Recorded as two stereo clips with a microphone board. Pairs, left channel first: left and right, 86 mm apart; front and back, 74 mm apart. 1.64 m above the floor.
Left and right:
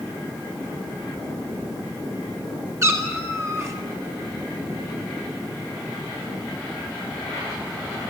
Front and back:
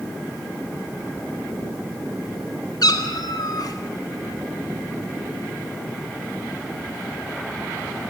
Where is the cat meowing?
35° right, 4 m.